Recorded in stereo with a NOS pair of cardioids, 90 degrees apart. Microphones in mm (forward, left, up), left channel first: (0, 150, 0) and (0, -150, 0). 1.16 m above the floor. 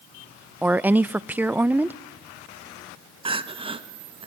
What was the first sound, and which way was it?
A woman speaking, 5° right.